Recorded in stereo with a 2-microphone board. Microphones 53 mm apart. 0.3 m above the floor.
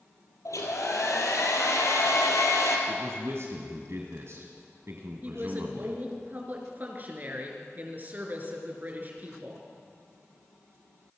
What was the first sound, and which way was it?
A hair dryer, 80° left.